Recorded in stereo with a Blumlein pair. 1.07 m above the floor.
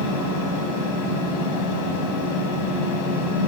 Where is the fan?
45° left, 1.4 m.